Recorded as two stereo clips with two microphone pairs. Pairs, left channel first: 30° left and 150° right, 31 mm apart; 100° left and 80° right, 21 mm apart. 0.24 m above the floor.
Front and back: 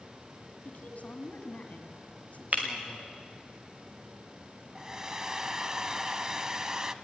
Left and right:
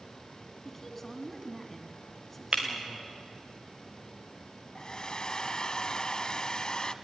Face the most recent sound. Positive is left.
turn(degrees=140)